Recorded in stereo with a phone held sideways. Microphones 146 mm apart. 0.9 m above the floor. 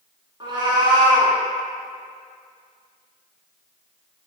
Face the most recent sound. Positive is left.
turn(degrees=-35)  # may be behind; listen again after turning